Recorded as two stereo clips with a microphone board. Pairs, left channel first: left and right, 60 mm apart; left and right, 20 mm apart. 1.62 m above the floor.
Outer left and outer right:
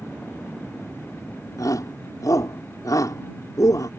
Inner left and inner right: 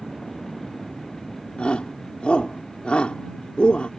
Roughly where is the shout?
Left.